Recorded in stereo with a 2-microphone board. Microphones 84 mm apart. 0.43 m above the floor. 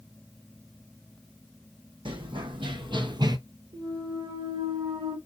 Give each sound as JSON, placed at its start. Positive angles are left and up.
{"t": 2.0, "sound": "running footsteps", "side_deg": -75, "distance_m": 1.5}
{"t": 3.7, "sound": "a clunk", "side_deg": -75, "distance_m": 2.0}